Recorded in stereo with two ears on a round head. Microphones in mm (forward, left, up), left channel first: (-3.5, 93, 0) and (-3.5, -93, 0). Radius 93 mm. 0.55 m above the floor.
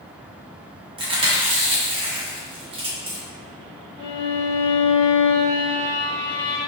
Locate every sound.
1.0 s chewing: 25° right (ahead or behind), 0.7 m
4.0 s a violin: 25° right (ahead or behind), 0.6 m